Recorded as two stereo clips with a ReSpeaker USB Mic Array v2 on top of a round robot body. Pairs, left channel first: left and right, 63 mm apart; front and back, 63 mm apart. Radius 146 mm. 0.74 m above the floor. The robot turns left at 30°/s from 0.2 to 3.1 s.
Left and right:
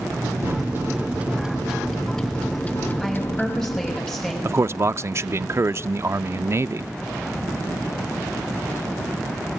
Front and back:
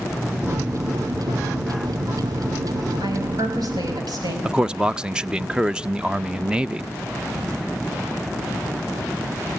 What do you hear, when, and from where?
0.4 s a microwave: 135° right, 0.9 m; by 4.0 s 145° left, 0.9 m
3.0 s a woman speaking: 175° left, 5.5 m; by 4.3 s 170° left, 5.5 m
4.5 s a man speaking: 110° right, 0.7 m